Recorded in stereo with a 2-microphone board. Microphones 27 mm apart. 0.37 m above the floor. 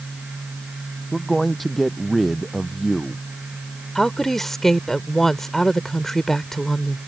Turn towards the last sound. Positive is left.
turn(degrees=15)  # may be behind; listen again after turning